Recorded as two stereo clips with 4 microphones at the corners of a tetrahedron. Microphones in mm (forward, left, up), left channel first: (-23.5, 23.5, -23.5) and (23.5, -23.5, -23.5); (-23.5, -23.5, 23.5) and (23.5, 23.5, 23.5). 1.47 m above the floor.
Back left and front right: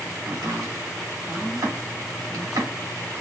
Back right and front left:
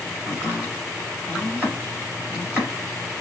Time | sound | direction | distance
0.2 | chopping | 35° right | 3.5 m